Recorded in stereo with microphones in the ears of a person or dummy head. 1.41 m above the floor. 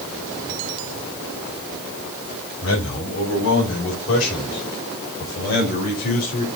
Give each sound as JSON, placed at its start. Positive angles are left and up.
{"t": 2.6, "sound": "a man speaking", "side_deg": 75, "distance_m": 6.5}